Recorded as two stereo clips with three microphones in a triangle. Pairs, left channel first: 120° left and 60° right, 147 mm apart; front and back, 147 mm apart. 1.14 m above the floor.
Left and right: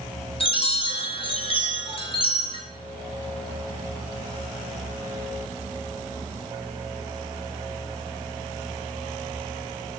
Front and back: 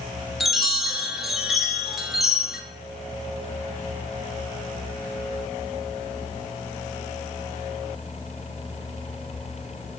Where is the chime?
95° left, 0.6 m.